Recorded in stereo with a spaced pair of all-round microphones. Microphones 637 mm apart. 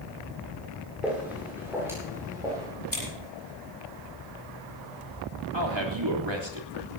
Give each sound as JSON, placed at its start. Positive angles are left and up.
{"t": 1.0, "sound": "footsteps", "side_deg": 0, "distance_m": 8.0}
{"t": 2.9, "sound": "scissors", "side_deg": 30, "distance_m": 9.0}
{"t": 5.5, "sound": "a man speaking", "side_deg": -40, "distance_m": 3.0}